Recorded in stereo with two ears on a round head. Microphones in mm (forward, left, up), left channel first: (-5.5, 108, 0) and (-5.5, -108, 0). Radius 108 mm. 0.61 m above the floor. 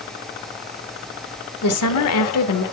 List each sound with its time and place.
1.6 s a woman speaking: 70° left (ahead or behind), 1.5 m